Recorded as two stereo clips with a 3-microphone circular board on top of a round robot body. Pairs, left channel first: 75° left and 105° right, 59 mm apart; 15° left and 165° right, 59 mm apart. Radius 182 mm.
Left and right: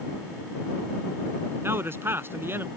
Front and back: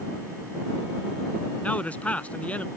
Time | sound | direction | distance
1.6 | a man speaking | 55° right | ?